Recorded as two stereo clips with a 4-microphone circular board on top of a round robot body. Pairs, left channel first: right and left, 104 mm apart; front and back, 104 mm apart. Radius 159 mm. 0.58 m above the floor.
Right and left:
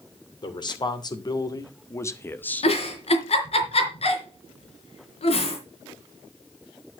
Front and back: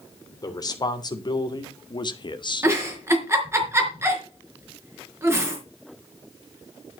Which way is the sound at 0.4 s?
50° right.